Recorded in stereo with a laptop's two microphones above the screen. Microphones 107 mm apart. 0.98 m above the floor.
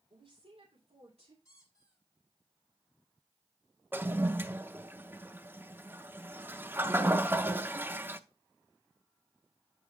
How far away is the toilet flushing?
About 0.7 m.